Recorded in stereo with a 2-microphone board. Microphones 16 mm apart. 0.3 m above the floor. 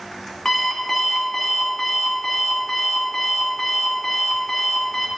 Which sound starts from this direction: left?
An alarm clock, at 0.5 s.